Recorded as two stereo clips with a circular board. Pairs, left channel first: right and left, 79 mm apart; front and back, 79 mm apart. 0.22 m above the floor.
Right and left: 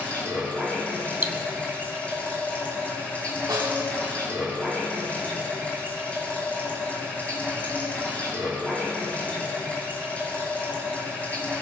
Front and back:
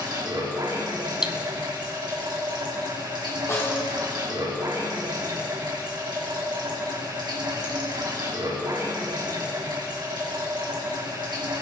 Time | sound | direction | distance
0.0 | running water | 160° right | 3 m
1.2 | cutlery clinking | 115° left | 0.6 m
3.5 | a snare drum | 55° left | 3 m